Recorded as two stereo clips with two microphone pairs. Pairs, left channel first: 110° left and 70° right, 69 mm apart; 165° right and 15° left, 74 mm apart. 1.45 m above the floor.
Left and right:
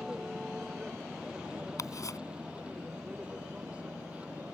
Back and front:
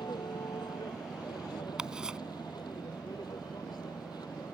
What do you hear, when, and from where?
0.0 s a vehicle: 150° right; by 4.5 s 140° right
1.8 s ticking: 90° left